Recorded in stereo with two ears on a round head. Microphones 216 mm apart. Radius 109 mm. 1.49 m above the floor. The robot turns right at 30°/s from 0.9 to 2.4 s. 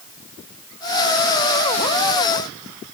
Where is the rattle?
No rattle in this recording.